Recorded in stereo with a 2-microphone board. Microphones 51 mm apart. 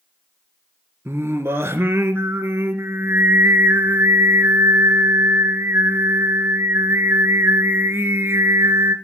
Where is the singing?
50° right (ahead or behind), 1.5 m.